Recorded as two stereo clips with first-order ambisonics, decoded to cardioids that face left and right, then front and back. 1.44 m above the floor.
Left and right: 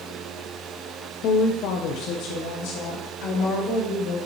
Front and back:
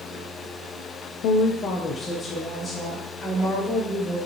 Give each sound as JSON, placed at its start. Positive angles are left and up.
{"t": 1.2, "sound": "a woman speaking", "azimuth_deg": 40, "distance_m": 0.5}